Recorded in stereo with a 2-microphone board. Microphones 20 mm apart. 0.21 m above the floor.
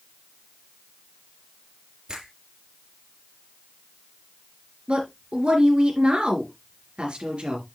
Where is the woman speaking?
65° right (ahead or behind), 4 m.